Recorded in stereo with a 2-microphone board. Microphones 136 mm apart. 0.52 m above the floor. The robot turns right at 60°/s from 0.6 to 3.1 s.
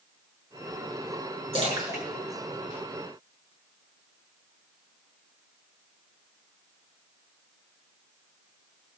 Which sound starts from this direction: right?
A splash, at 1.5 s.